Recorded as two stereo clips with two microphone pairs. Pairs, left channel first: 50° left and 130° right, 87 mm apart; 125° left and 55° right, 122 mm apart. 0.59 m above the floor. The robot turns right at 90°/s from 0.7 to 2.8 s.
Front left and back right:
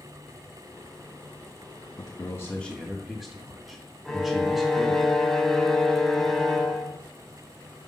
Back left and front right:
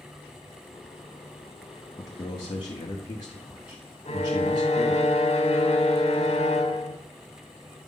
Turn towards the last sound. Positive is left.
turn(degrees=135)